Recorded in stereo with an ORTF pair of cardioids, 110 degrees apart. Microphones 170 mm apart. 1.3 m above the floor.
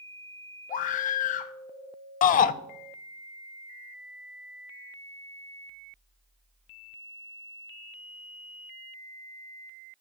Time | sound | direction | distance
0.7 | a scream | 50° left | 0.9 m
2.2 | a shout | 55° left | 0.8 m